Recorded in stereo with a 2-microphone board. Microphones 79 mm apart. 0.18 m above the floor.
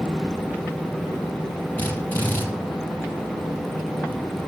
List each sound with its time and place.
1.8 s a drill: 20° left (ahead or behind), 6 m